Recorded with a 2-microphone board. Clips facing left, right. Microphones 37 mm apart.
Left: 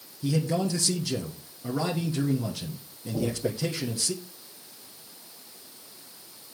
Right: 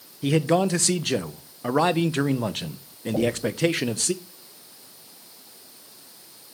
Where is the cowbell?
No cowbell in this recording.